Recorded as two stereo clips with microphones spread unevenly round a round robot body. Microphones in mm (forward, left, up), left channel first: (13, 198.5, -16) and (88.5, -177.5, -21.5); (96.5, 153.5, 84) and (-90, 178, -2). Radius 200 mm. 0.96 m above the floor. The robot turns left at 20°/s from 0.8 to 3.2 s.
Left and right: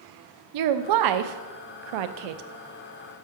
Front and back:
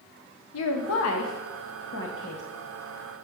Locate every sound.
0.5 s a woman speaking: 40° right, 0.6 m; by 2.4 s 70° right, 0.6 m